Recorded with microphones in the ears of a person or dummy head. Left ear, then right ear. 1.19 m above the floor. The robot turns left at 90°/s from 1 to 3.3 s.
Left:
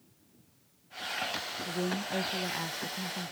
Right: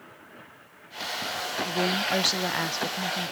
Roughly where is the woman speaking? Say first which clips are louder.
Right 10 dB; ahead right.